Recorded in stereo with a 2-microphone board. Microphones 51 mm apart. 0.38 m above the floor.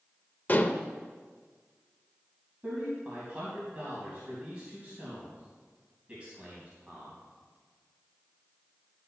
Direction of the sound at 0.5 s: 35° left (ahead or behind).